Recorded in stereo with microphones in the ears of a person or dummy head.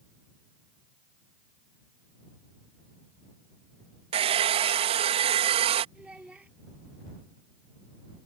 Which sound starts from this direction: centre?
A child speaking, at 6.0 s.